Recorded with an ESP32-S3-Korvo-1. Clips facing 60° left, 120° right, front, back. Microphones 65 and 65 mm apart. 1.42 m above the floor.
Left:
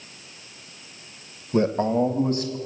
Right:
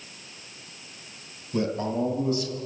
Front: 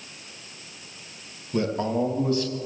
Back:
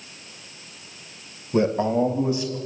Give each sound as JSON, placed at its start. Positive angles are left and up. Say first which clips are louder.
{"t": 1.5, "sound": "a man speaking", "louder": "left 6 dB, back 4 dB", "azimuth_deg": 115, "distance_m": 1.3}